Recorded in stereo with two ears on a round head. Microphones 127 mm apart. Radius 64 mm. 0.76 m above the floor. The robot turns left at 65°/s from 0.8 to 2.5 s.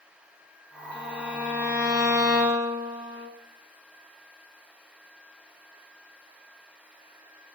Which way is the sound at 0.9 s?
165° left.